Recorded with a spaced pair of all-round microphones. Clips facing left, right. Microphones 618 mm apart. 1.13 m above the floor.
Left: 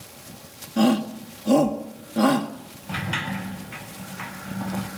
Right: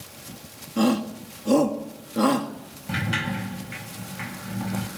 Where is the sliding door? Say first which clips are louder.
Right 2 dB; 45° right (ahead or behind), 3.5 m.